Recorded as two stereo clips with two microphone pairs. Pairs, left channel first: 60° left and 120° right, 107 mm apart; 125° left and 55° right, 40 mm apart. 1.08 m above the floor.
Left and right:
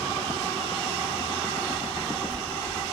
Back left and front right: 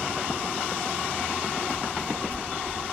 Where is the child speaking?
150° left, 1.2 m; by 2.8 s straight behind, 1.2 m.